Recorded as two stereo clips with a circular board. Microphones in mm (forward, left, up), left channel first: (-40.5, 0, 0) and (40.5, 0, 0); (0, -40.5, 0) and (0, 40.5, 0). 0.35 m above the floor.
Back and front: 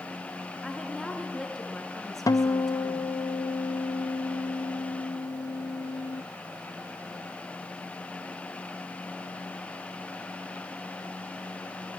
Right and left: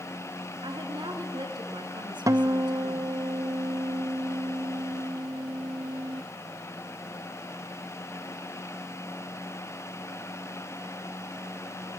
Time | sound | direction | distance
0.6 | a woman speaking | 95° left | 3.5 m
2.3 | a guitar | 135° left | 0.6 m